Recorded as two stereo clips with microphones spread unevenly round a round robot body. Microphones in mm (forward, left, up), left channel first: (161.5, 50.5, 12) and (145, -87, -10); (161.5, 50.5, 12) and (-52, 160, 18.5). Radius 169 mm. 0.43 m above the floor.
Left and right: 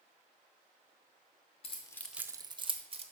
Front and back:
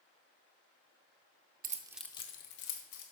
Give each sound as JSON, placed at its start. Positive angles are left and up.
{"t": 1.6, "sound": "keys jangling", "azimuth_deg": 120, "distance_m": 0.7}